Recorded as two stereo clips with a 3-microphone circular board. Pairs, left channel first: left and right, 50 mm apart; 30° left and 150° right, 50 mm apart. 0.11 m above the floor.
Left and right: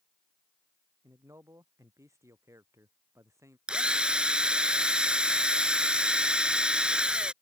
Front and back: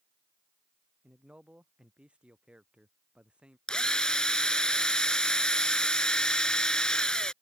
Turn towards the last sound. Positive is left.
turn(degrees=-35)